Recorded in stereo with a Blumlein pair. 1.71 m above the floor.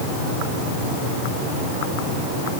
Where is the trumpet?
No trumpet in this recording.